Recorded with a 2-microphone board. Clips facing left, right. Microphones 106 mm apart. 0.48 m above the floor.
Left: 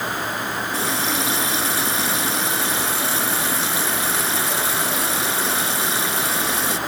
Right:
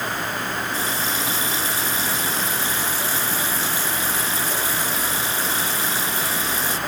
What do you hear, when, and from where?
0.7 s a running tap: 75° left (ahead or behind)